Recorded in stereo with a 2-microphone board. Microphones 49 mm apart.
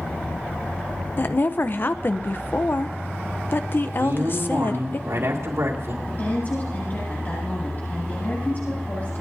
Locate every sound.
1.2 s a woman speaking: 45° left (ahead or behind), 0.8 m
4.0 s a man speaking: 75° right (ahead or behind), 3.5 m
6.1 s a woman speaking: 40° left (ahead or behind), 9 m